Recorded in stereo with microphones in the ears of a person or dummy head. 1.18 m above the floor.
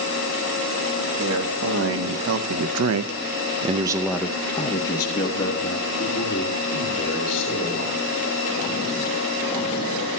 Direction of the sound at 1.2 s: 70° right (ahead or behind).